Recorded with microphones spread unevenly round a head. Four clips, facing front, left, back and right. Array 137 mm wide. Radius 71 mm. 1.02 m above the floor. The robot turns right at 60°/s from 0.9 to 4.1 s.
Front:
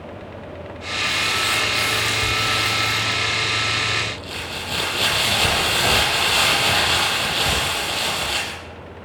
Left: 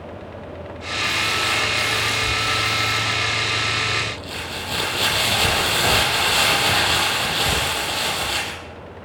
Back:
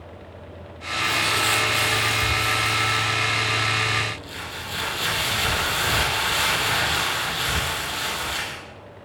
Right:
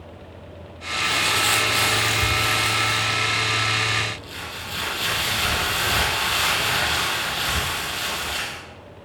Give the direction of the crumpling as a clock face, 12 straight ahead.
5 o'clock.